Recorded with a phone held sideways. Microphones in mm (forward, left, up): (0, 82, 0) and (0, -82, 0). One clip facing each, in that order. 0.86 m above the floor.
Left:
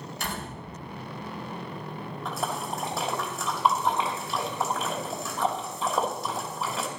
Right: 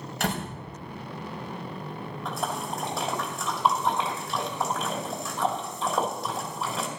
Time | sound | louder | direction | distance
0.2 | a door slam | right 7 dB | 70° right (ahead or behind) | 3 m
2.2 | a splash | even | centre (ahead or behind) | 2.5 m